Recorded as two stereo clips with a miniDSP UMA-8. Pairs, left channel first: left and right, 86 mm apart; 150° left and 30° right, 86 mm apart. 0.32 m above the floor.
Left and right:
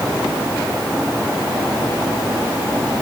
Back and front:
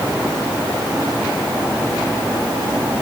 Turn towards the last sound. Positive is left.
No sound to turn to.